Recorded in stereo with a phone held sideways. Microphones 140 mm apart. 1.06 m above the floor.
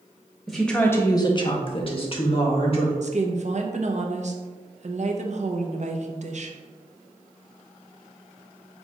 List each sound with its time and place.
0.5 s a woman speaking: centre (ahead or behind), 0.8 m; by 2.9 s 40° left (ahead or behind), 1.7 m
3.0 s a woman speaking: 55° right (ahead or behind), 0.7 m